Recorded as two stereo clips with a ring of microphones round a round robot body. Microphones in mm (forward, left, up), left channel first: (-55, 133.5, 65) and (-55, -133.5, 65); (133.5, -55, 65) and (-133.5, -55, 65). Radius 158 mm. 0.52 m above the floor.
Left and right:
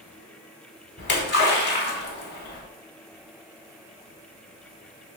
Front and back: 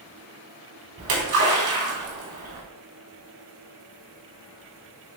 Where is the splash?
140° left, 4 m.